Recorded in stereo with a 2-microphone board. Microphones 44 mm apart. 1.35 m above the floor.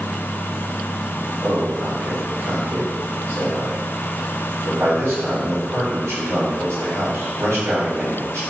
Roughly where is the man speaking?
Right.